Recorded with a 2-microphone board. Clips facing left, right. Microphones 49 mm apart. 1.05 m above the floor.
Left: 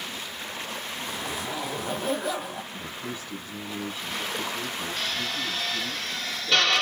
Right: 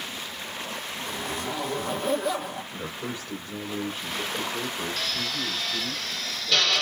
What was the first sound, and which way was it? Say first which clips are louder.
A zipper: right 2 dB; centre (ahead or behind).